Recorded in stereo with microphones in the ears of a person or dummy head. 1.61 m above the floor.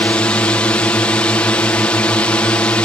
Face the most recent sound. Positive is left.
turn(degrees=10)  # may be behind; listen again after turning